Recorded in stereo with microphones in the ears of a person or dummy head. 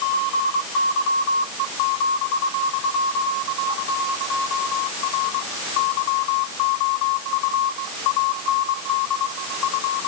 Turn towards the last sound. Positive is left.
No sound to turn to.